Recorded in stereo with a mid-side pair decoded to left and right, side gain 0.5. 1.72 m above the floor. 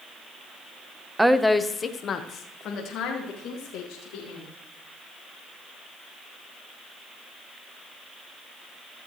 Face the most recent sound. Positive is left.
turn(degrees=80)